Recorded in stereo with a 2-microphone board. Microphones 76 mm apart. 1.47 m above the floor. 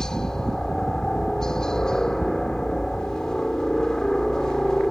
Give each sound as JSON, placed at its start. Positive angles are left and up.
{"t": 0.0, "sound": "a helicopter", "side_deg": 10}